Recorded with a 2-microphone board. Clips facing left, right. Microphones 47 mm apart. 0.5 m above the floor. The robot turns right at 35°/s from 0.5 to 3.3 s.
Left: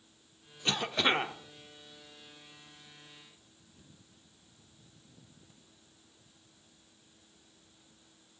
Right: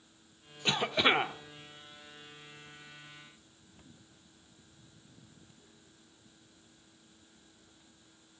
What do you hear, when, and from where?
0.7 s a cough: 20° right (ahead or behind), 0.8 m; by 1.3 s 10° right (ahead or behind), 0.8 m